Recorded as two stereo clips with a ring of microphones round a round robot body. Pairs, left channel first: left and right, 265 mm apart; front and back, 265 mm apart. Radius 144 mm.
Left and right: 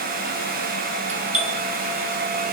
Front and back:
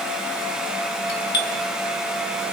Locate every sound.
1.1 s a doorbell: 30° right, 2 m